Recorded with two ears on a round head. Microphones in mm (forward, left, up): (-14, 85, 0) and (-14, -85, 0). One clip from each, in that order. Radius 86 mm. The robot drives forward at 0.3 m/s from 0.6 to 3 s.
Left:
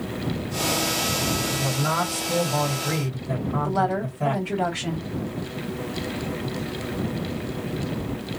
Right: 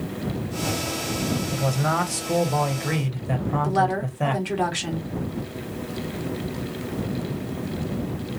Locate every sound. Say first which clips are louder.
1.5 s a man speaking: even; 65° right (ahead or behind), 1.2 m; by 4.4 s 50° right (ahead or behind), 1.4 m
3.6 s a woman speaking: right 1 dB; 75° right (ahead or behind), 1.7 m